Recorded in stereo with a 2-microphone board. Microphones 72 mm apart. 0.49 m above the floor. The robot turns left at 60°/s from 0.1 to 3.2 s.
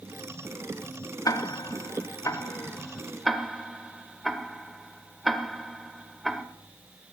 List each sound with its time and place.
1.2 s ticking: 55° left (ahead or behind), 1.1 m; by 6.4 s centre (ahead or behind), 1.1 m